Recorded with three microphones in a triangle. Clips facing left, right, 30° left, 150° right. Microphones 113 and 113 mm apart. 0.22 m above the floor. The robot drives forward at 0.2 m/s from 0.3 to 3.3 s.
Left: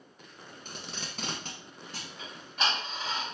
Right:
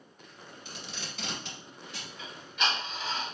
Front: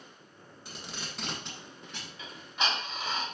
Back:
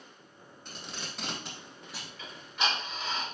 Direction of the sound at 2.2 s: 90° left.